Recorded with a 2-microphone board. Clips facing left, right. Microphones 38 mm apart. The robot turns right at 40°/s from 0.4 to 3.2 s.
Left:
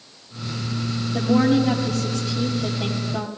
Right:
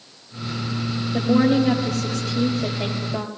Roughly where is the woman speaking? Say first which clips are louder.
Even; behind right.